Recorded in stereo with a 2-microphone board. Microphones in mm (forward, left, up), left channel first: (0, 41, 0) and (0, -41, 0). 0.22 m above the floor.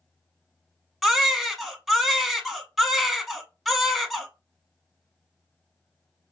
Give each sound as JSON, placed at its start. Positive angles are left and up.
{"t": 1.0, "sound": "a baby crying", "side_deg": 0, "distance_m": 0.6}